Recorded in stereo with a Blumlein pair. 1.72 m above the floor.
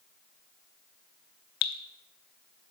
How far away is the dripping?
About 1.1 m.